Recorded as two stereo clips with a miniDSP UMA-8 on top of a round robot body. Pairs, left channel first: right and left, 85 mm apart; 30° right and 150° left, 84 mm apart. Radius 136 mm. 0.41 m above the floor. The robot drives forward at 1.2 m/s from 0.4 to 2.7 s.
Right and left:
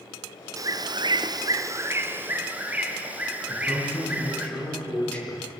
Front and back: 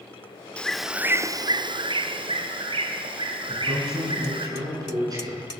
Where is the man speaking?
165° right, 7.5 m.